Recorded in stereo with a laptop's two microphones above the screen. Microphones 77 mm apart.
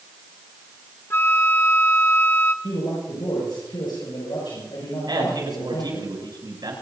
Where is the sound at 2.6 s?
75° left (ahead or behind), 6 m.